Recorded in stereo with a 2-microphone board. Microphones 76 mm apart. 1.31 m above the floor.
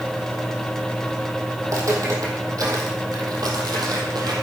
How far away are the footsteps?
About 3.5 m.